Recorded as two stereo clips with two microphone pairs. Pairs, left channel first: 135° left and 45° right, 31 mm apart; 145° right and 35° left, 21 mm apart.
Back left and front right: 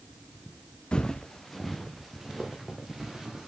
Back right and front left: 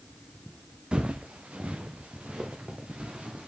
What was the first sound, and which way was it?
Footsteps, 75° left.